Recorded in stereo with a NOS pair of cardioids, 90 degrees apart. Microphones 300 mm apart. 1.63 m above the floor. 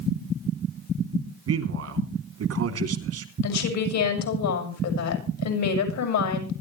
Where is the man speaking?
55° right, 3.5 m.